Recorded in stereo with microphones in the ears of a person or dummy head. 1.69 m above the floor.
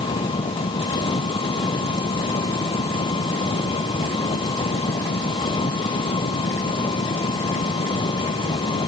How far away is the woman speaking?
No woman speaking in this recording.